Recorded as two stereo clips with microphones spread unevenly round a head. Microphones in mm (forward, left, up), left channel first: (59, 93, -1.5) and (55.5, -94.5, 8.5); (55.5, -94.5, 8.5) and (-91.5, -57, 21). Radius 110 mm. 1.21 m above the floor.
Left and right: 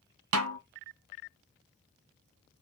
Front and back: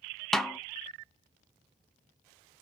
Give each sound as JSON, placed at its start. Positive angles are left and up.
{"t": 0.3, "sound": "a snare drum", "azimuth_deg": -100, "distance_m": 1.2}